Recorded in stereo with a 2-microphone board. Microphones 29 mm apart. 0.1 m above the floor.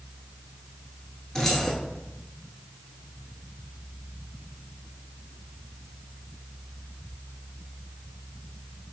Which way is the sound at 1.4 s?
15° left (ahead or behind).